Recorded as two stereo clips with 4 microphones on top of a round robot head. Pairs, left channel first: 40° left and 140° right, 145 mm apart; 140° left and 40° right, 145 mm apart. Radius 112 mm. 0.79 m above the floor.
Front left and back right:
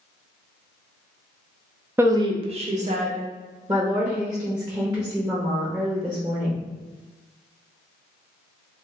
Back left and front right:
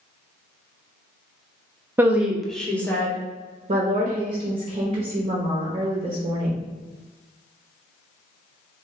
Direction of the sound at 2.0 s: 90° right.